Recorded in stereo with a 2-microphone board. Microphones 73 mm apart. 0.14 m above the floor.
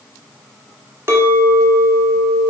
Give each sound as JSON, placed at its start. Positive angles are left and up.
{"t": 1.1, "sound": "a clink", "side_deg": -35, "distance_m": 1.0}